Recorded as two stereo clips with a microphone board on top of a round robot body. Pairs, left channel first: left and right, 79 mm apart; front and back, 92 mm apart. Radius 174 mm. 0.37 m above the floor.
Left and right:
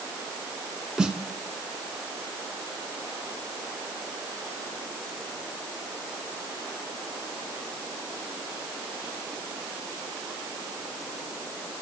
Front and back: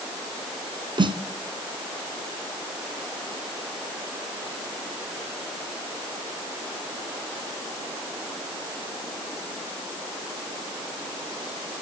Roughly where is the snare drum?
Behind.